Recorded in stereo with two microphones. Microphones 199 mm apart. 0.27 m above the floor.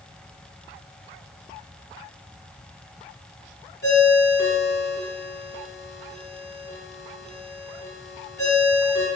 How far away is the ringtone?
About 1.6 m.